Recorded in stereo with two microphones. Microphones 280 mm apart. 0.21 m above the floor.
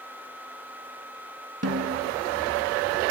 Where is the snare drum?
55° right (ahead or behind), 0.9 m.